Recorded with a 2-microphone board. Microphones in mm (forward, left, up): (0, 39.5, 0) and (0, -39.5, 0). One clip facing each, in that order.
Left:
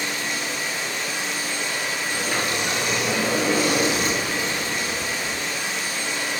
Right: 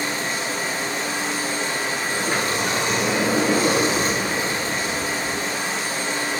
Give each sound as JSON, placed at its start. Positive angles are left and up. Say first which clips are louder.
{"t": 0.0, "sound": "running water", "louder": "right 2 dB", "side_deg": -35, "distance_m": 1.6}
{"t": 2.1, "sound": "a sliding door", "louder": "right 2 dB", "side_deg": -25, "distance_m": 3.5}